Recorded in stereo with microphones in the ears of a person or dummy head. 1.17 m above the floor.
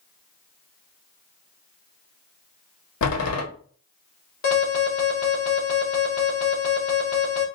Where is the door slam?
80° left, 1.4 m.